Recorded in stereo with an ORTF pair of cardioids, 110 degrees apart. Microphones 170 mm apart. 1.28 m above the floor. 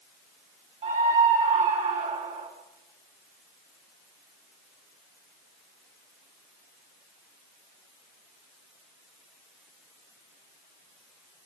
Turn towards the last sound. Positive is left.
turn(degrees=-45)